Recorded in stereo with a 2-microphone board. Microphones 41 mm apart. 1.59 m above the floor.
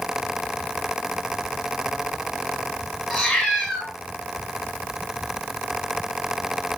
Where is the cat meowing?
5° left (ahead or behind), 1.2 m.